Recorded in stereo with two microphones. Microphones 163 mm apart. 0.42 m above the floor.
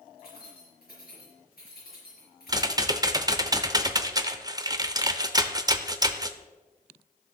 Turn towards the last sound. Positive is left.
turn(degrees=-25)  # may be behind; listen again after turning